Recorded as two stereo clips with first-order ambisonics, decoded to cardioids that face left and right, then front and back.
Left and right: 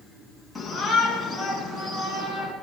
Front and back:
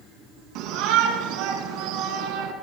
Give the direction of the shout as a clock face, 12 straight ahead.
6 o'clock.